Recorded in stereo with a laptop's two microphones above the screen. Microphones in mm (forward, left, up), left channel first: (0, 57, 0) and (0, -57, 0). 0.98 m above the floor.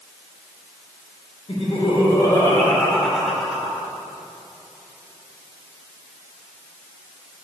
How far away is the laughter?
About 2.5 m.